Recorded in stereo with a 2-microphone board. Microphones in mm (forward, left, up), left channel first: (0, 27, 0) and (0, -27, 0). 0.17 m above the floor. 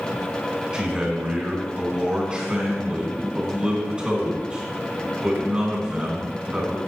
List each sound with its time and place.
0.7 s a man speaking: 20° right (ahead or behind), 1.9 m